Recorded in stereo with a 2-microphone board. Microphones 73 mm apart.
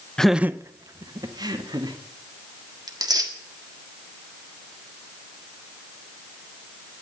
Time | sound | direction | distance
0.2 | laughter | 10° left (ahead or behind) | 0.5 m
2.9 | tearing paper | 65° right (ahead or behind) | 1.7 m